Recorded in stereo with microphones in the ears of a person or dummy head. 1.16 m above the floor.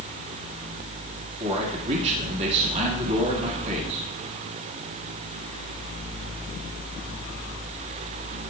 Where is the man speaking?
35° right (ahead or behind), 2 m.